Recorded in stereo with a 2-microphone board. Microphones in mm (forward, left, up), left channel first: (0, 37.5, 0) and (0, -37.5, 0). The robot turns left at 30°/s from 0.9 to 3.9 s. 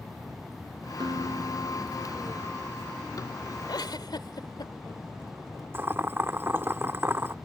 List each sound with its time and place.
1.0 s a guitar: 90° right; by 2.9 s 145° right
3.7 s a giggle: 75° left (ahead or behind)
5.7 s boiling: 30° right (ahead or behind)